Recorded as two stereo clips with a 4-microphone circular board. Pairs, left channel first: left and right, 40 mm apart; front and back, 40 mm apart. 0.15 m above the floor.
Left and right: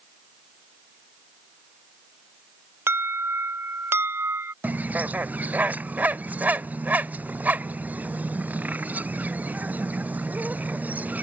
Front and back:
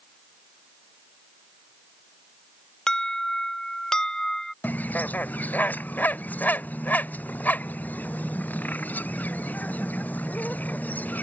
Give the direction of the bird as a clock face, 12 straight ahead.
1 o'clock.